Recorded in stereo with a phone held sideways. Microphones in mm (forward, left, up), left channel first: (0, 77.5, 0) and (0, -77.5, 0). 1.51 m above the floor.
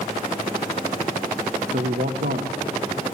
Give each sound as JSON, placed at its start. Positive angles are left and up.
{"t": 1.7, "sound": "a man speaking", "side_deg": -80, "distance_m": 1.0}